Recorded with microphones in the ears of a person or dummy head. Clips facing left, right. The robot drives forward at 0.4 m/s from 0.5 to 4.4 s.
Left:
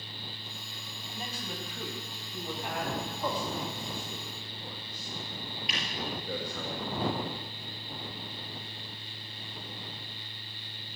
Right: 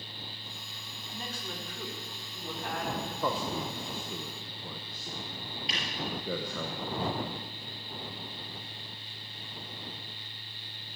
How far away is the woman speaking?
About 2 m.